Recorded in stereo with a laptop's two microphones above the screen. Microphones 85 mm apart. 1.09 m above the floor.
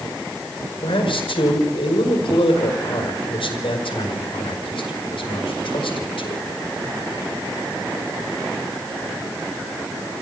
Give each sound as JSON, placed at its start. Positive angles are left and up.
{"t": 0.8, "sound": "a man speaking", "side_deg": 80, "distance_m": 5.0}